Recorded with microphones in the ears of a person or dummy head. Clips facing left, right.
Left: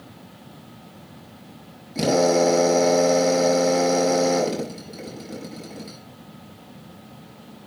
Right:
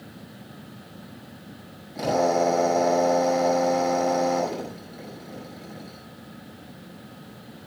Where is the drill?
40° left (ahead or behind), 8 m.